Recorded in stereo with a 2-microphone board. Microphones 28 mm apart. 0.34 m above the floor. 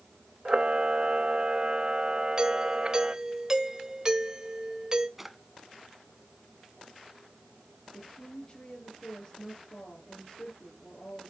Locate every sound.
0.5 s a camera shutter: 40° right (ahead or behind), 0.9 m
2.4 s a doorbell: 25° right (ahead or behind), 1.6 m
5.2 s a drawer: 5° right (ahead or behind), 1.2 m
7.9 s a woman speaking: 40° left (ahead or behind), 5 m